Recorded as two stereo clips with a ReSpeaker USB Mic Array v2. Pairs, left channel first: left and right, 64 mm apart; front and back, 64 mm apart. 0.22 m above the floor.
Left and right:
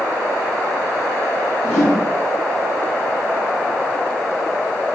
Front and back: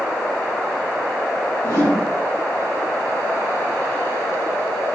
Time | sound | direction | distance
1.6 | a whoosh | 10° left | 2 m